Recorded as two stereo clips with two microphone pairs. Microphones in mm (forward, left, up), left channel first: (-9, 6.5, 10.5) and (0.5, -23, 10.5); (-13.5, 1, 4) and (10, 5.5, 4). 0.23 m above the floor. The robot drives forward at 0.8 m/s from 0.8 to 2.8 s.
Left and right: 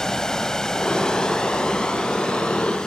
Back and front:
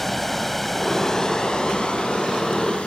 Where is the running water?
125° left, 0.7 m; by 2.9 s 175° left, 1.9 m.